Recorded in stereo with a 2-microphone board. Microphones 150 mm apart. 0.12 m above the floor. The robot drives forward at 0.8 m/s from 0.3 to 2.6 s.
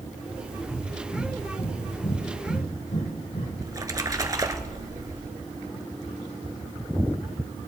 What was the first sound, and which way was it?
Breathing, 45° left (ahead or behind).